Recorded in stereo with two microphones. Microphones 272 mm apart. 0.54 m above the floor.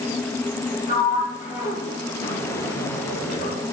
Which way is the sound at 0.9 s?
35° left (ahead or behind).